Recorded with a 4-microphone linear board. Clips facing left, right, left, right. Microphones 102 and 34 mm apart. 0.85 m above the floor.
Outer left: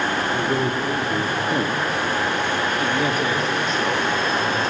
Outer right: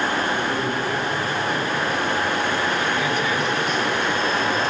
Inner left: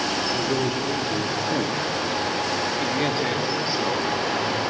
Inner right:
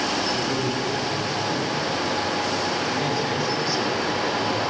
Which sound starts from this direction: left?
A man speaking, at 0.3 s.